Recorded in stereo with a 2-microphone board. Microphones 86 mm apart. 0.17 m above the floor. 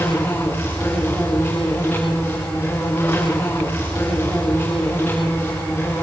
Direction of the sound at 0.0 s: 20° left (ahead or behind).